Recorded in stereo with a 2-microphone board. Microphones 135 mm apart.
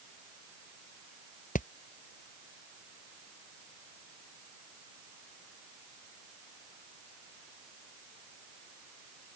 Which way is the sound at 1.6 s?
70° left (ahead or behind).